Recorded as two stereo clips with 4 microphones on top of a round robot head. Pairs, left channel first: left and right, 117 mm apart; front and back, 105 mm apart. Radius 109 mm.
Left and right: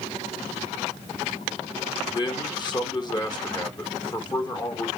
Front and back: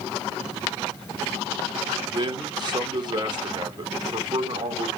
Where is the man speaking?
140° left, 2.5 m.